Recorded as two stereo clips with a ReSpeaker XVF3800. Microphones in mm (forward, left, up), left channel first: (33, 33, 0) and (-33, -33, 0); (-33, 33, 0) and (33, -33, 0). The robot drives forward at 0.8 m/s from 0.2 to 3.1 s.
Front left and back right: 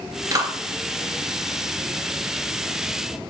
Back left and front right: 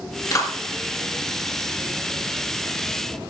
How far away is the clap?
About 2.5 m.